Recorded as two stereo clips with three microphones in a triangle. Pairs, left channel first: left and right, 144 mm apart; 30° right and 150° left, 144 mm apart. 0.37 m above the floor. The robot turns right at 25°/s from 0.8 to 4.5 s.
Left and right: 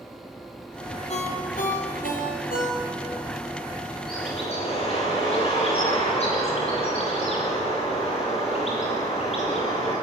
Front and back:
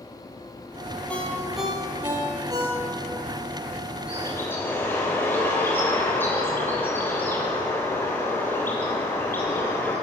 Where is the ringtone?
50° left, 6 m; by 3.1 s 100° left, 6 m.